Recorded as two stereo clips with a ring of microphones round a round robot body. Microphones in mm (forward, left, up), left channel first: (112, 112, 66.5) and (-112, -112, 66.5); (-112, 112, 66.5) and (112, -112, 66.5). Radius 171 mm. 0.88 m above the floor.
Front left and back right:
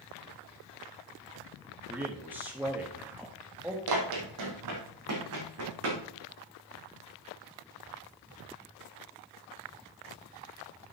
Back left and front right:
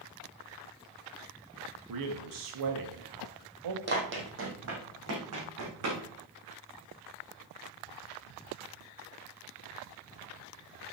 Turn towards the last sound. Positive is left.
turn(degrees=-85)